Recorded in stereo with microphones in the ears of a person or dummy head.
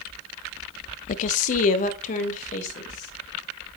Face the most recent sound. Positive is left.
turn(degrees=45)  # may be behind; listen again after turning